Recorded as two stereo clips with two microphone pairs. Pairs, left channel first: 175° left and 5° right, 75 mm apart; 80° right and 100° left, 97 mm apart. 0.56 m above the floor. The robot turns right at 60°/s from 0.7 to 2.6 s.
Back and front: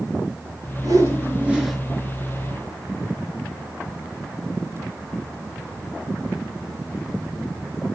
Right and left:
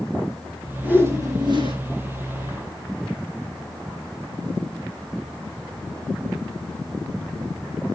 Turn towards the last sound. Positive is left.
turn(degrees=135)